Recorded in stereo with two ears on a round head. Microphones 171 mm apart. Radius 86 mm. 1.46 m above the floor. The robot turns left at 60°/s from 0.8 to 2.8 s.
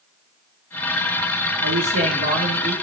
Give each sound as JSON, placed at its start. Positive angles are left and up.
{"t": 1.6, "sound": "a man speaking", "azimuth_deg": -80, "distance_m": 2.5}